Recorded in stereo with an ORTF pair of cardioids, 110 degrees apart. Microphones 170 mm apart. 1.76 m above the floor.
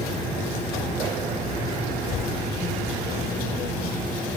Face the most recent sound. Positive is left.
turn(degrees=55)